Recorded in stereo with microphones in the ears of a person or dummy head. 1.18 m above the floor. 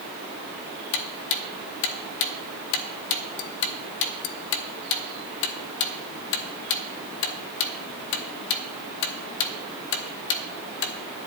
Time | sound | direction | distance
0.9 | ticking | 60° left (ahead or behind) | 0.9 m